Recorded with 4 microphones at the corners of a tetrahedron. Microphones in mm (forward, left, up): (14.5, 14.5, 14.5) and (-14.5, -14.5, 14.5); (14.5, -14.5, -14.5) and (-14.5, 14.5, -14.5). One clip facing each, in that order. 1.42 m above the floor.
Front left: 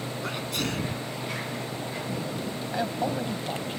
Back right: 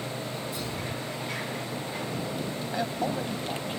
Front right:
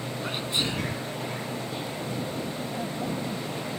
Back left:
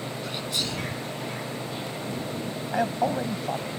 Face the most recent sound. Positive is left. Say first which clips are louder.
# front left 1 dB, back left 10 dB
turn(degrees=130)